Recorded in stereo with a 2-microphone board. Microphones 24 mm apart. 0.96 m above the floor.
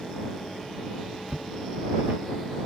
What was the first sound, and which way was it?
Footsteps, 50° right (ahead or behind).